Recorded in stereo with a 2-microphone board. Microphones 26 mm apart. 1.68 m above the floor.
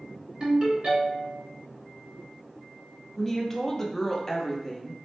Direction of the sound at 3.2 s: 15° left (ahead or behind).